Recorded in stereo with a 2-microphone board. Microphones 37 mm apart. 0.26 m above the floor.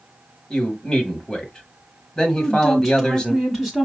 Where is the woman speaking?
10° right (ahead or behind), 2.0 m.